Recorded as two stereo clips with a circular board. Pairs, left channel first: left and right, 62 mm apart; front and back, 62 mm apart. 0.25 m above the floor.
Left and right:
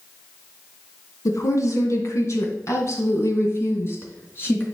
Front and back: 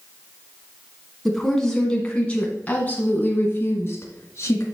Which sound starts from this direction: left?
A woman speaking, at 1.2 s.